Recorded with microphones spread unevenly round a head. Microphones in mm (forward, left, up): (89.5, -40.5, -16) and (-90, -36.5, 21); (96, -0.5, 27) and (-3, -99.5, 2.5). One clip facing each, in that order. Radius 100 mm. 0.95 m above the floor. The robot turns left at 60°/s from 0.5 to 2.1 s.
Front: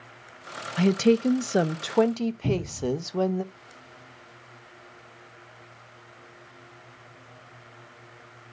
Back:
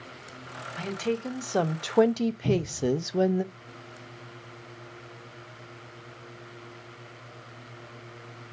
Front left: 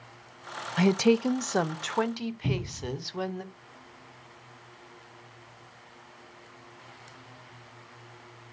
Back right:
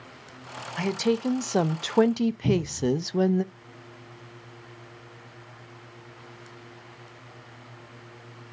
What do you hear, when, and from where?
0.8 s a woman speaking: 20° right, 0.6 m; by 3.4 s 100° right, 0.6 m
2.4 s a cupboard door: 65° right, 2.5 m